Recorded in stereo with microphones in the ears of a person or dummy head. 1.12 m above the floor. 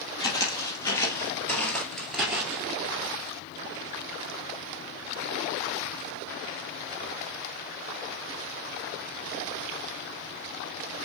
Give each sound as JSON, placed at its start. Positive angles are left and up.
{"t": 0.2, "sound": "footsteps", "side_deg": 25, "distance_m": 1.8}